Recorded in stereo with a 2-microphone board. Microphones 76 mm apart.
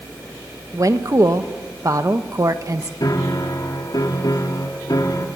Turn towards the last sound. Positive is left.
turn(degrees=60)  # may be behind; listen again after turning